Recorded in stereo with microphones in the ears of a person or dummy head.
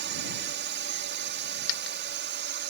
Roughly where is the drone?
Right.